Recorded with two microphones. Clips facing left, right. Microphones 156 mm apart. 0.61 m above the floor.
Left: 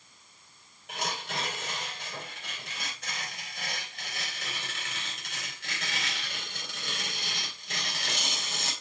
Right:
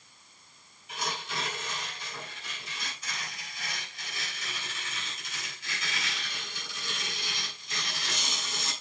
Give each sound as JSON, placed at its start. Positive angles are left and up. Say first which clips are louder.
{"t": 0.9, "sound": "tearing paper", "louder": "left 1 dB", "side_deg": 70, "distance_m": 3.0}